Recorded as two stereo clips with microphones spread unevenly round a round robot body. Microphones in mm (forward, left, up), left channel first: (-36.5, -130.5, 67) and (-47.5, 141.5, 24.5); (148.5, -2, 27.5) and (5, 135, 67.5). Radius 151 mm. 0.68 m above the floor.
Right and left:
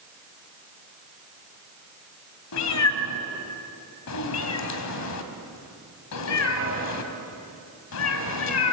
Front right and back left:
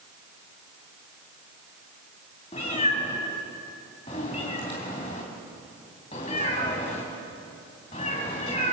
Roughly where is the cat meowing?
Behind right.